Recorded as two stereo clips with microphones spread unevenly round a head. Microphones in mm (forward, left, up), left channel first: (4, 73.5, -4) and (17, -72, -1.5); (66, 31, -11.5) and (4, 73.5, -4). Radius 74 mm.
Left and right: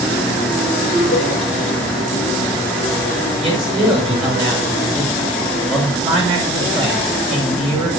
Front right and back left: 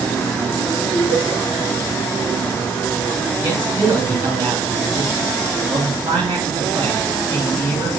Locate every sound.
0.9 s laughter: 100° right, 6.5 m
3.4 s a man speaking: 145° right, 6.5 m